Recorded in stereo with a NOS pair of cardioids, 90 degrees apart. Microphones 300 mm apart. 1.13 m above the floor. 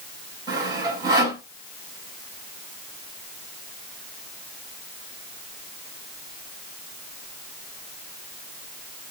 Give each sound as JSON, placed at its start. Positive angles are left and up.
{"t": 0.5, "sound": "sawing", "azimuth_deg": -15, "distance_m": 4.0}